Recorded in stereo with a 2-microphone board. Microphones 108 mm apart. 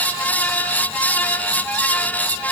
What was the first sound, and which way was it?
Only background noise.